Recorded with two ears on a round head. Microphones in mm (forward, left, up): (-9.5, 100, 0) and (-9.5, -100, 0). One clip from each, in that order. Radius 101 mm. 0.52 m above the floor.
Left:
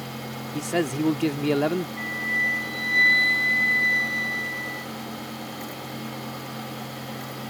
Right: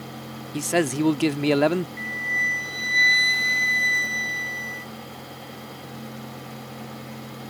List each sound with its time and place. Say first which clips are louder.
0.5 s a man speaking: right 3 dB; 20° right (ahead or behind)
2.0 s a flute: even; 20° right (ahead or behind)